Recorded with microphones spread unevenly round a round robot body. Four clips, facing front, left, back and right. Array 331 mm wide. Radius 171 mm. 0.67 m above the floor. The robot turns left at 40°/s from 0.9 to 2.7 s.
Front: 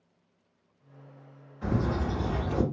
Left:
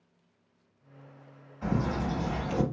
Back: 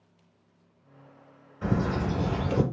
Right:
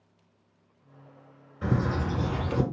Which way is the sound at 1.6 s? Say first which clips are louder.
Right 2 dB, back 2 dB; 130° right.